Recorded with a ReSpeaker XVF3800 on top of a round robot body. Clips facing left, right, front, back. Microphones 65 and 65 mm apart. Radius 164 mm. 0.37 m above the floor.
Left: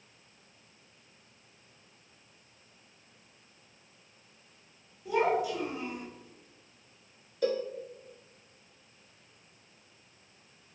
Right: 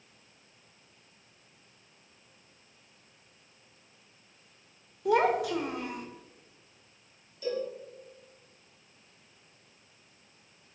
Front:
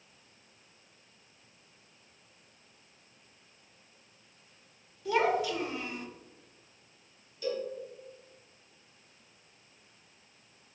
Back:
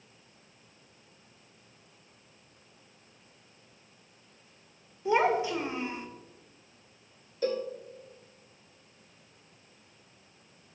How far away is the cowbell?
About 0.6 m.